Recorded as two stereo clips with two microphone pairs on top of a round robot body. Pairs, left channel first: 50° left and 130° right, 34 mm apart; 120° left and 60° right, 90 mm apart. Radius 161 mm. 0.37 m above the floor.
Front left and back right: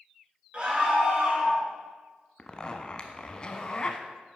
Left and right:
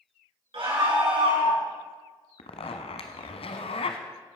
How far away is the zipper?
About 1.0 m.